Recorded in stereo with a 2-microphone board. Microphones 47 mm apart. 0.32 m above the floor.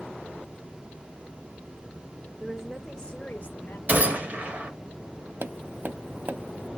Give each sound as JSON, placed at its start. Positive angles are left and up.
{"t": 2.4, "sound": "a woman speaking", "side_deg": -20, "distance_m": 0.9}
{"t": 3.9, "sound": "a gunshot", "side_deg": -35, "distance_m": 1.3}
{"t": 5.4, "sound": "tapping", "side_deg": -45, "distance_m": 0.7}